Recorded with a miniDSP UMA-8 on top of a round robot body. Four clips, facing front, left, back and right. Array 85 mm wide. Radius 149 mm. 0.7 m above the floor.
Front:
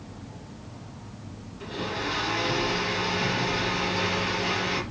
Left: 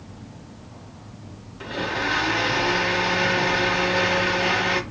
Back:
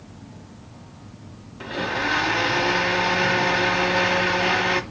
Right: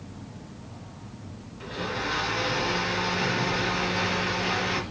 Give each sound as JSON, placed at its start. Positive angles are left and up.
{"t": 1.6, "sound": "a blender", "azimuth_deg": 150, "distance_m": 0.9}